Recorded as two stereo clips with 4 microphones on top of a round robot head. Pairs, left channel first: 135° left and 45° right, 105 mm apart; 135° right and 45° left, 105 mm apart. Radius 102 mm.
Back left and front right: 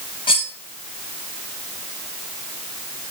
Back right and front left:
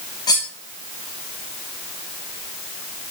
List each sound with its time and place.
0.3 s cutlery clinking: 175° left, 0.9 m